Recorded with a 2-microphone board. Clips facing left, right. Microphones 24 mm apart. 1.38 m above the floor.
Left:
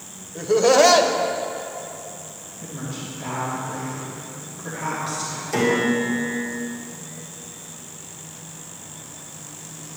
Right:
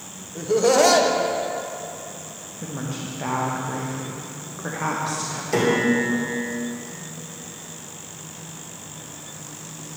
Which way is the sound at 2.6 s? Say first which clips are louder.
Right 2 dB; 60° right (ahead or behind).